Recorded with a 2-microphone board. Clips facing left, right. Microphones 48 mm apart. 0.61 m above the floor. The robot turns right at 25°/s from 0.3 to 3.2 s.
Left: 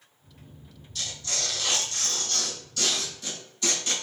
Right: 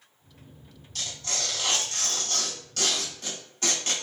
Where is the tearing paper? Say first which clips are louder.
Even; 110° right, 1.6 m; by 3.9 s 55° right, 1.6 m.